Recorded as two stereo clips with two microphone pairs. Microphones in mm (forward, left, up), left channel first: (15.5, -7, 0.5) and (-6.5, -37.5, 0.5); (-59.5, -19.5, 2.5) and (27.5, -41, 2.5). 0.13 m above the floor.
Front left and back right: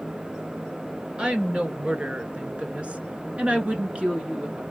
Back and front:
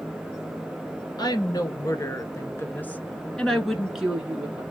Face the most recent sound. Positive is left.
turn(degrees=-80)